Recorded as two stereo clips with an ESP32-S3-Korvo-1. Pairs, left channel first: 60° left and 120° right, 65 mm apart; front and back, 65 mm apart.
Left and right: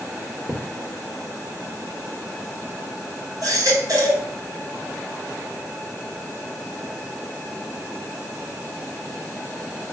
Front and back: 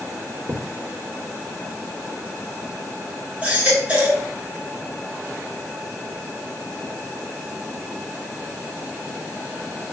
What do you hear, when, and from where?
0.5 s a thud: 175° right, 2 m
3.4 s a baby crying: 110° right, 3.5 m